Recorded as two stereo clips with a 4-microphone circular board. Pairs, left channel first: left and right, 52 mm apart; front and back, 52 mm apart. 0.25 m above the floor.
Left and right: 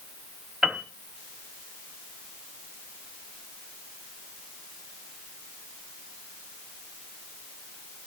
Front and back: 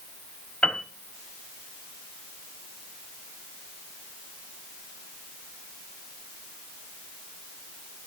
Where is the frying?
No frying in this recording.